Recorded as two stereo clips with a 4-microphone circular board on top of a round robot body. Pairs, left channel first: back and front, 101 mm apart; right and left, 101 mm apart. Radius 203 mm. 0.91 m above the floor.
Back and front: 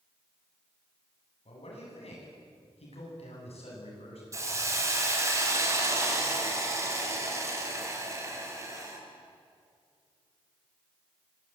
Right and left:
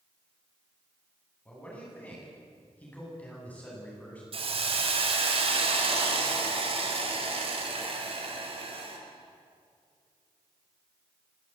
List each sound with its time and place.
1.4 s a man speaking: 165° right, 9.5 m
4.3 s a hiss: 60° left, 4.5 m